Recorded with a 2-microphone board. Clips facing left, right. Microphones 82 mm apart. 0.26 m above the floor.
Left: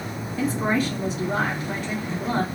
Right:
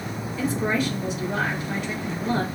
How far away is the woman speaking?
About 2.5 m.